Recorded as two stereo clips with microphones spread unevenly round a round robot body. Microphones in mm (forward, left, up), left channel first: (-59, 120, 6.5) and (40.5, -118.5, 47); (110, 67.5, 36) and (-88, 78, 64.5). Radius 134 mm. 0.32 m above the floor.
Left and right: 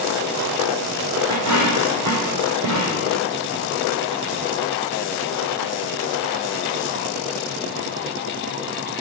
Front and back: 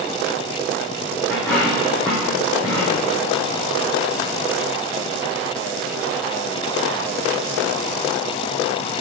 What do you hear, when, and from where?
1.3 s a dropped coin: 85° right, 4.5 m